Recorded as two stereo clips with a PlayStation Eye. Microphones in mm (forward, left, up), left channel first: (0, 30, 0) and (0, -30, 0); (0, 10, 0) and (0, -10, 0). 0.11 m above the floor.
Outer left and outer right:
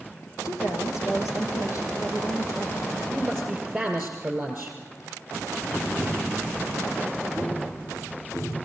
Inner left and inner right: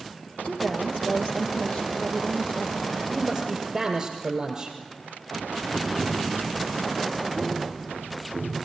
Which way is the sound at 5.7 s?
25° left (ahead or behind).